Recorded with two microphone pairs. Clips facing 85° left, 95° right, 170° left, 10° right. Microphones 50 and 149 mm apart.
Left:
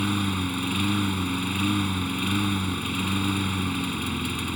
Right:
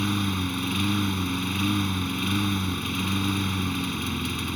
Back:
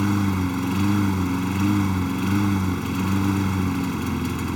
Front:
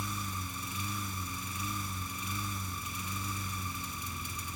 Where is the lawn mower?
170° left.